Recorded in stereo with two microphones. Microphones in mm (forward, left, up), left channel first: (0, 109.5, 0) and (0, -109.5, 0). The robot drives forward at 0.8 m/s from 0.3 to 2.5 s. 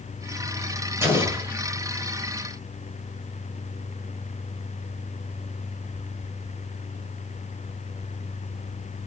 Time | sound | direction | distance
1.0 | an explosion | 10° right (ahead or behind) | 1.8 m